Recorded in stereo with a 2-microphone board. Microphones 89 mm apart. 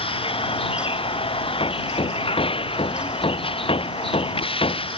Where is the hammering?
90° left.